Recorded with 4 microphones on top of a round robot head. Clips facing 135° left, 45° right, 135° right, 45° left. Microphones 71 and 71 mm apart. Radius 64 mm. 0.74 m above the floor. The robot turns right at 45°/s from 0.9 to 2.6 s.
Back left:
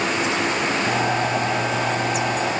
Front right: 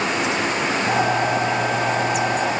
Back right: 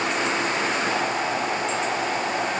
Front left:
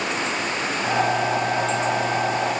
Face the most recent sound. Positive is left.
No sound to turn to.